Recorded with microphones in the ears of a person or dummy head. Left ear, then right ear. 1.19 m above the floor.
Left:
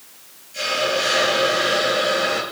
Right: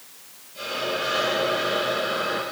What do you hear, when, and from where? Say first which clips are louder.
0.5 s a hiss: left 7 dB; 70° left (ahead or behind), 8.5 m